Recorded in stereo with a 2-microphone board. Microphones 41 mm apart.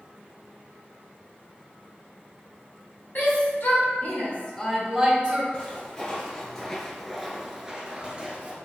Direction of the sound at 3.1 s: 55° left (ahead or behind).